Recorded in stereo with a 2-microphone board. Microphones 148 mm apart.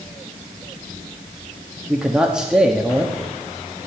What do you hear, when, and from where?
1.9 s a man speaking: 5° right (ahead or behind), 1.4 m